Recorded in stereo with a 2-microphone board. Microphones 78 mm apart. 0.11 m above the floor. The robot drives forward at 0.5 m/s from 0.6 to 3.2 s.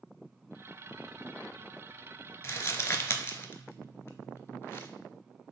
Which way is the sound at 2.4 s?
35° left (ahead or behind).